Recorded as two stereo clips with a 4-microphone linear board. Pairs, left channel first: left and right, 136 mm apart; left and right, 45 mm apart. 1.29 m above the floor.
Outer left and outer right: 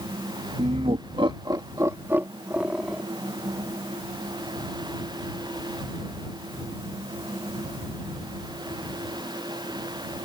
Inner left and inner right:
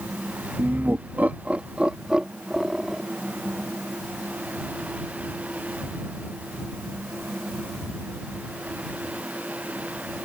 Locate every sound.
0.6 s laughter: 55° right (ahead or behind); by 3.0 s 5° right (ahead or behind)